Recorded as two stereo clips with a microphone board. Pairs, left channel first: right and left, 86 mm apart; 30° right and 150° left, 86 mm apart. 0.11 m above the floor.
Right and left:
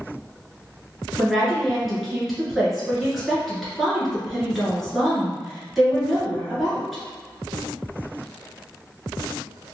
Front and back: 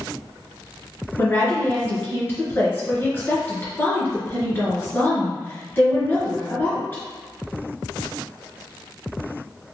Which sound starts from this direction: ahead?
A woman speaking, at 1.2 s.